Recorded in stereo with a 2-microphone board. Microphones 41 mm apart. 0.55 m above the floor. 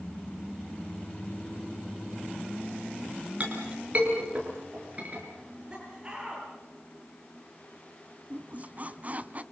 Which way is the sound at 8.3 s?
40° right (ahead or behind).